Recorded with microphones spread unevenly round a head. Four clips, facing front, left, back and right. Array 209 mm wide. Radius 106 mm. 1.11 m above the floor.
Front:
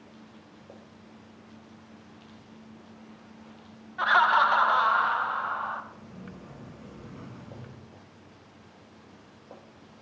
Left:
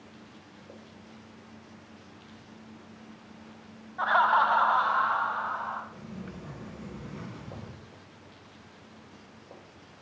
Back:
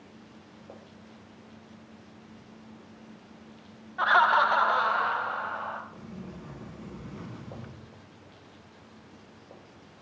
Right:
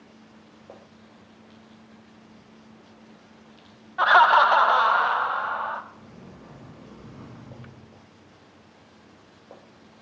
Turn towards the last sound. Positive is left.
turn(degrees=120)